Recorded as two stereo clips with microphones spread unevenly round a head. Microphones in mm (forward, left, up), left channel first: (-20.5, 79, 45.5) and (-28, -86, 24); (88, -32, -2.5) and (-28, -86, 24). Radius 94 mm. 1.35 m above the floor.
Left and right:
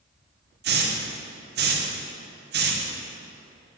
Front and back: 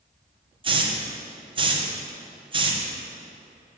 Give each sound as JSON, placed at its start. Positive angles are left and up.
{"t": 0.6, "sound": "a hiss", "azimuth_deg": -100, "distance_m": 1.4}